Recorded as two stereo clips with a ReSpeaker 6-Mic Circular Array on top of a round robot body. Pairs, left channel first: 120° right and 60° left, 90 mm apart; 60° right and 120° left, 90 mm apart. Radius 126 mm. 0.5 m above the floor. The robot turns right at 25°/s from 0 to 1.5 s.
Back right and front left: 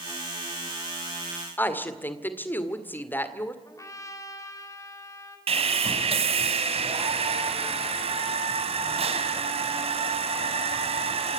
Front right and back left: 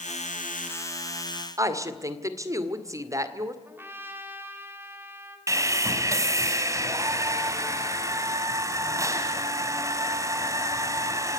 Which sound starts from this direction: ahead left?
Sawing, at 5.5 s.